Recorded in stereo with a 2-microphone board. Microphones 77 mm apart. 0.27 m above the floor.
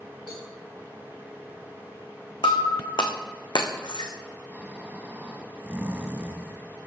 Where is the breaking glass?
70° left (ahead or behind), 2.0 m.